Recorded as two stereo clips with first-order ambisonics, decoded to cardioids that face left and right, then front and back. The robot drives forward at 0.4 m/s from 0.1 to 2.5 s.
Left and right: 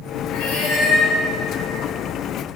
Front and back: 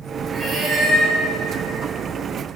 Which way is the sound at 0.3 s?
100° left.